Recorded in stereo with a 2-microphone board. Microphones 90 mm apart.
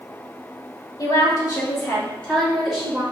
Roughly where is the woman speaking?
Left.